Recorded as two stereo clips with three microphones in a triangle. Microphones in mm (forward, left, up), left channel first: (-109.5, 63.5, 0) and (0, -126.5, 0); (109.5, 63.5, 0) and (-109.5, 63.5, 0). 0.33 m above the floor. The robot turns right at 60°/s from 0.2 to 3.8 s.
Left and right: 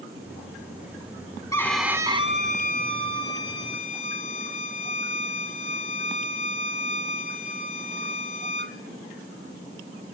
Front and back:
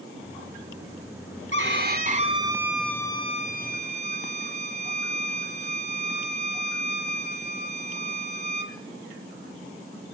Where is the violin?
165° right, 2 m; by 8.8 s 30° right, 2 m.